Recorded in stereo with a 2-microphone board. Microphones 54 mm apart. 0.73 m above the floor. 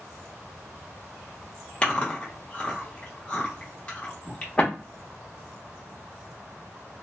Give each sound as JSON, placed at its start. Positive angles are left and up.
{"t": 1.8, "sound": "chewing", "side_deg": 20, "distance_m": 1.0}